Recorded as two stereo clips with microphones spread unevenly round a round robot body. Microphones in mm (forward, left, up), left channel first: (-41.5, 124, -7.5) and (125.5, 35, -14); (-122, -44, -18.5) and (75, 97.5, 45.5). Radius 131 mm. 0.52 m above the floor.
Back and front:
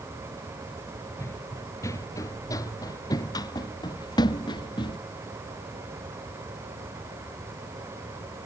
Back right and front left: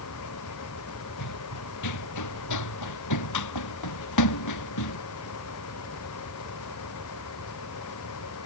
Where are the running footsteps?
125° right; by 5.0 s 135° right.